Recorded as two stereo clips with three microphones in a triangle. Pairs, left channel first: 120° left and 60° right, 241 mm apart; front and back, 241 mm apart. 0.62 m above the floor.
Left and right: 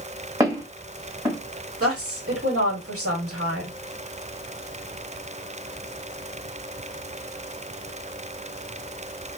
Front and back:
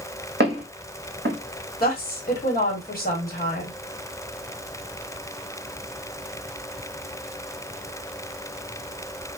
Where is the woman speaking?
50° right, 1.3 m.